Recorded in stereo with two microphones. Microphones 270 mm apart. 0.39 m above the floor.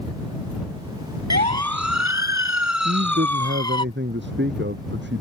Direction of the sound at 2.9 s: 40° right (ahead or behind).